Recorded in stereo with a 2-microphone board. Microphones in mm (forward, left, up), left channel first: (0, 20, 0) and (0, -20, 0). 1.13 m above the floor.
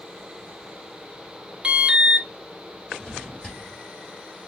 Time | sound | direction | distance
1.6 | an alarm | 25° right (ahead or behind) | 0.7 m
3.0 | a drawer | 10° left (ahead or behind) | 3.5 m